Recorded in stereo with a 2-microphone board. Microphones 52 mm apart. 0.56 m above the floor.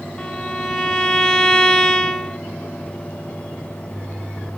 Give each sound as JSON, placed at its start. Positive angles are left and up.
{"t": 0.2, "sound": "a violin", "side_deg": 10, "distance_m": 0.6}